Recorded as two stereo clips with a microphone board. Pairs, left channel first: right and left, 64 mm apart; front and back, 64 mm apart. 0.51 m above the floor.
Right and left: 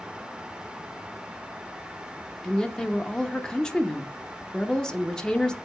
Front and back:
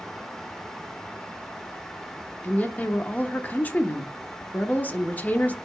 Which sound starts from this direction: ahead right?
A woman speaking, at 2.4 s.